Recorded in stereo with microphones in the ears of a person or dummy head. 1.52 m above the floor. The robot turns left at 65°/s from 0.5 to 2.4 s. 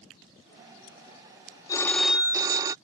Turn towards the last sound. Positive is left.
turn(degrees=-25)